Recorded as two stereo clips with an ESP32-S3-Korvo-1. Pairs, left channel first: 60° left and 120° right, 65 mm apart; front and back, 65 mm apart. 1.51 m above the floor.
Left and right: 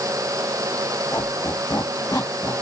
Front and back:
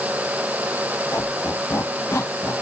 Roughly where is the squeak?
Ahead left.